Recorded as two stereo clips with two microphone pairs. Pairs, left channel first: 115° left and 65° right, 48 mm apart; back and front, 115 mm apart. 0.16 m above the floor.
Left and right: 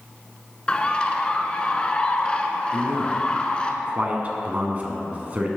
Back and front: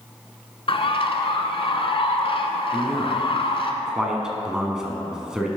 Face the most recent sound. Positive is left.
turn(degrees=-80)